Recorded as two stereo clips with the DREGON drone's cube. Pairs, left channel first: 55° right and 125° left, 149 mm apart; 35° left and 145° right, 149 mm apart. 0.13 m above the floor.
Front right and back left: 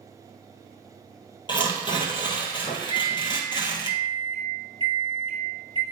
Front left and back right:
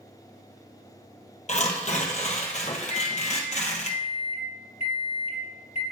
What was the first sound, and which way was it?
Tearing paper, straight ahead.